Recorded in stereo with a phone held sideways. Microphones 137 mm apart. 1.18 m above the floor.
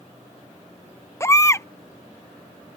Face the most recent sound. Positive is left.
turn(degrees=20)  # may be behind; listen again after turning